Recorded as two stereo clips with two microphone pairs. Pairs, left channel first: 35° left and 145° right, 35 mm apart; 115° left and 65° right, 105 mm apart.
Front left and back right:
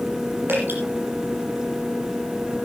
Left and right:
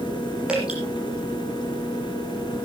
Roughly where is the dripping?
Behind right.